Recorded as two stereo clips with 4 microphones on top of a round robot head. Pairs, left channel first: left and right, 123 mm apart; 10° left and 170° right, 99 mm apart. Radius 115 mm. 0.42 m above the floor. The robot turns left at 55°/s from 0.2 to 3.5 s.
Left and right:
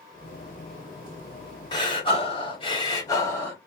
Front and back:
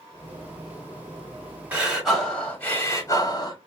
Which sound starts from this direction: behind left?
Breathing, at 1.7 s.